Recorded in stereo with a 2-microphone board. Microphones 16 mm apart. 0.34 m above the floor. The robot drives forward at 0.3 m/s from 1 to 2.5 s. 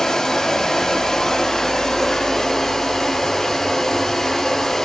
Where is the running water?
40° left (ahead or behind), 0.9 m; by 4.8 s 25° left (ahead or behind), 1.2 m.